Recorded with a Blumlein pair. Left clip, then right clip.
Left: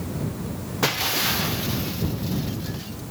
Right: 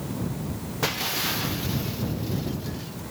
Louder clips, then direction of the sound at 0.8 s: Left 4 dB; 10° left.